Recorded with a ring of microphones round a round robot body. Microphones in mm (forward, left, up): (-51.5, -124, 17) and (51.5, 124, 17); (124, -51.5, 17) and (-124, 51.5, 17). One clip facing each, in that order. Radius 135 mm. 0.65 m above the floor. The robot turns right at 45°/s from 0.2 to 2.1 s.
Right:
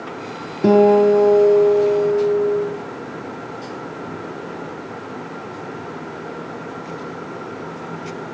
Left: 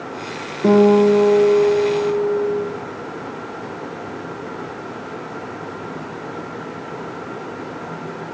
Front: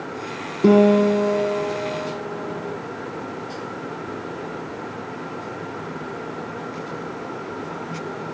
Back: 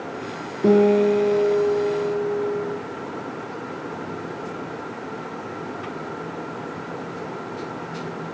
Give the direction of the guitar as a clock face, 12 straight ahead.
3 o'clock.